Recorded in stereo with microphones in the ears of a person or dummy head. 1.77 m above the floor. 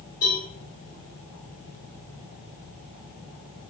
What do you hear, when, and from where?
0.2 s a cowbell: 45° left (ahead or behind), 1.2 m